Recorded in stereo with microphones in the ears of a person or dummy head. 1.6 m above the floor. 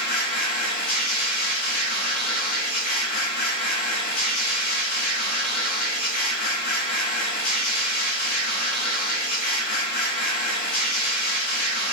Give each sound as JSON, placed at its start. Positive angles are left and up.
{"t": 0.0, "sound": "a machine running", "side_deg": 40, "distance_m": 6.5}